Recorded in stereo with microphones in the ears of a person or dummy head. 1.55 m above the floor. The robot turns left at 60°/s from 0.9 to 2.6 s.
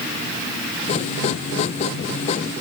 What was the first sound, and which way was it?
Only background noise.